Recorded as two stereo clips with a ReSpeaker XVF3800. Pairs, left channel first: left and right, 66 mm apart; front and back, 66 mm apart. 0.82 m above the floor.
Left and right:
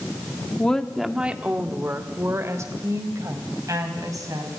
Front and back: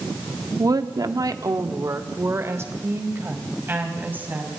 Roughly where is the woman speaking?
Behind.